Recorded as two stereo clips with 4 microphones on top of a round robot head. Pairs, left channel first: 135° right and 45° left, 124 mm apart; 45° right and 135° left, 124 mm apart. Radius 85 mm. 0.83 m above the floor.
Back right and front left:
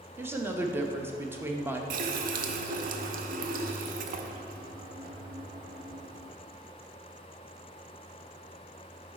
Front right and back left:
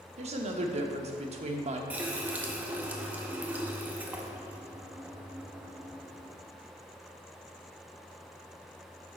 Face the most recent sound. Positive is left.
turn(degrees=55)